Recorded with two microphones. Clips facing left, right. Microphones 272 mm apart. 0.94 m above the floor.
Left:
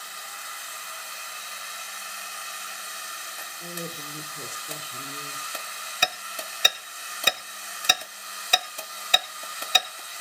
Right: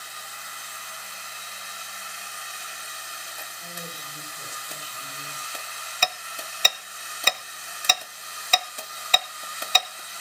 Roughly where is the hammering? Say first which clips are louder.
Right 1 dB; centre.